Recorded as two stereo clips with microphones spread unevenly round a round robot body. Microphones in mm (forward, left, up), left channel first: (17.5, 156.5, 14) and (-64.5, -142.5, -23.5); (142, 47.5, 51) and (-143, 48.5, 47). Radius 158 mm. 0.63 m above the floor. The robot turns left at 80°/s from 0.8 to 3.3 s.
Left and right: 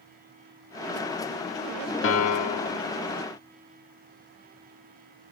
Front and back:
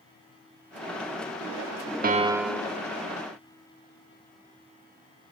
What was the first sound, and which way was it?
A piano, 125° left.